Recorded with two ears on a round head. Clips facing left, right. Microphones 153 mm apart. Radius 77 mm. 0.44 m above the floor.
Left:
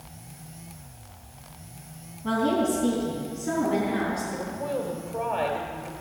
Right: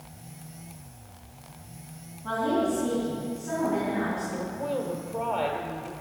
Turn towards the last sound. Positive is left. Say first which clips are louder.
# even
turn(degrees=0)  # may be behind; listen again after turning